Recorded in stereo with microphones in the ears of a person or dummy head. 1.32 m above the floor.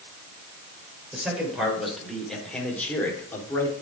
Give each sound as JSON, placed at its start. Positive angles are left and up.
{"t": 1.1, "sound": "a man speaking", "side_deg": -5, "distance_m": 4.5}